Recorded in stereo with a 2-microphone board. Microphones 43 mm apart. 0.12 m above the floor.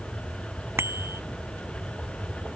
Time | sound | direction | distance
0.8 | a bicycle bell | 80° right | ?